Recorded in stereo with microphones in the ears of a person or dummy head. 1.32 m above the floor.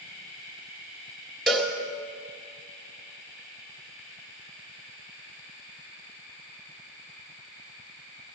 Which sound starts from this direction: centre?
A cowbell, at 1.5 s.